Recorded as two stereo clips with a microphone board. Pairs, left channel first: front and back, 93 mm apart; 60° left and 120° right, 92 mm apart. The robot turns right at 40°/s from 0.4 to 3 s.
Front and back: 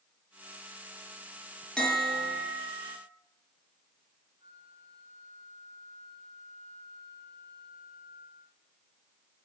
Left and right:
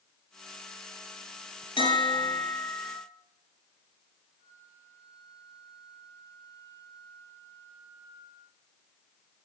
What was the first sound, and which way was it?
A bell, 85° left.